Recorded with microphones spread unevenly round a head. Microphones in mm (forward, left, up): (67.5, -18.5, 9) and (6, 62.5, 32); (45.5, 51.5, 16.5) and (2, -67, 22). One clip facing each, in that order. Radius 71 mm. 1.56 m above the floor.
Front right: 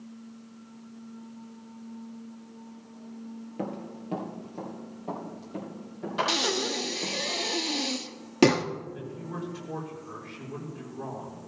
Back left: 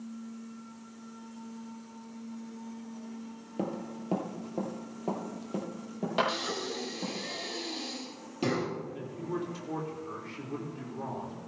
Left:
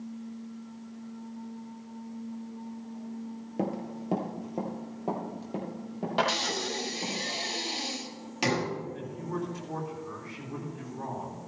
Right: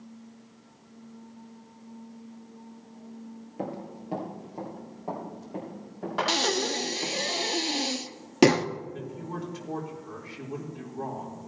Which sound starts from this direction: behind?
A man speaking, at 8.9 s.